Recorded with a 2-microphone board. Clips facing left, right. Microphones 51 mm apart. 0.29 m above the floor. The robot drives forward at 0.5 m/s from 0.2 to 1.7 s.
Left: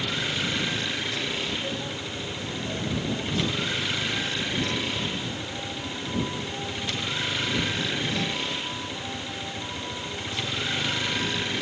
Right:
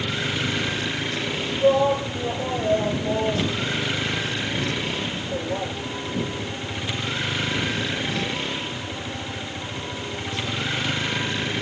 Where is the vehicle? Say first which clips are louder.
Right 3 dB; 10° right (ahead or behind).